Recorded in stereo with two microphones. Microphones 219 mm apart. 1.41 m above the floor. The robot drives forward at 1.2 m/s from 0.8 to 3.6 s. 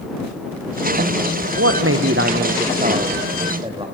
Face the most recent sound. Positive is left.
turn(degrees=-25)  # may be behind; listen again after turning